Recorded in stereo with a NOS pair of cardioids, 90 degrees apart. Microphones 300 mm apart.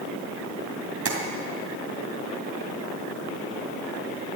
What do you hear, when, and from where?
1.1 s tapping: 45° right, 3 m